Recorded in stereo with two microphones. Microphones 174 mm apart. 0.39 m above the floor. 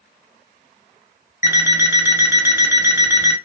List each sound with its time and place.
1.4 s an alarm clock: 15° right (ahead or behind), 0.8 m